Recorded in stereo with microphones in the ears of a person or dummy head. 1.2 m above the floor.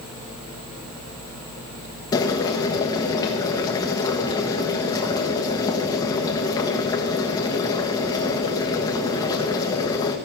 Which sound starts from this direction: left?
Boiling, at 2.1 s.